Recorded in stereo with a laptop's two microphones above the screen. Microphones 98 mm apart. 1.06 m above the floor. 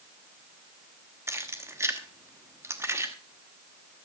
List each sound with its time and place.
1.3 s keys jangling: 25° right (ahead or behind), 1.0 m